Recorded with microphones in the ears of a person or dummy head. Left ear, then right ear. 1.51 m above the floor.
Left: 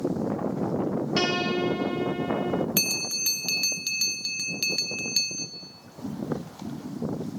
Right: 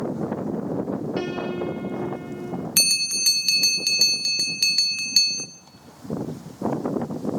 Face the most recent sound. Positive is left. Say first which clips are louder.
# right 6 dB
turn(degrees=-15)  # may be behind; listen again after turning